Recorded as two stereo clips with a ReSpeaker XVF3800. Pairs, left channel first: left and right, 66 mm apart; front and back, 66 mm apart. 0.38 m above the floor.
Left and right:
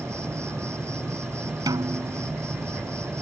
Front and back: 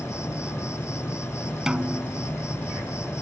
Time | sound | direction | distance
0.0 | an insect | 45° right | ?
1.7 | a snare drum | 100° right | ?